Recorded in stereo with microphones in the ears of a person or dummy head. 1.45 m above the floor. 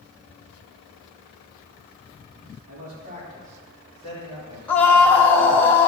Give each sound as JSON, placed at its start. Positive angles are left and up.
{"t": 2.7, "sound": "a man speaking", "side_deg": -50, "distance_m": 3.5}
{"t": 4.7, "sound": "a scream", "side_deg": 10, "distance_m": 1.4}